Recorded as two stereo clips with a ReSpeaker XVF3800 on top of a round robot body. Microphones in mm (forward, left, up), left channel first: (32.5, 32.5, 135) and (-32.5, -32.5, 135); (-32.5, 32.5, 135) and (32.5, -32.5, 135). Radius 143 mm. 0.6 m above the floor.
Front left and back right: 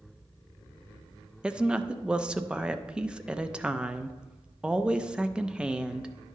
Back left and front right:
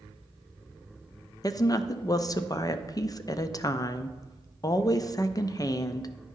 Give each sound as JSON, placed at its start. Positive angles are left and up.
{"t": 1.4, "sound": "a woman speaking", "azimuth_deg": 150, "distance_m": 0.6}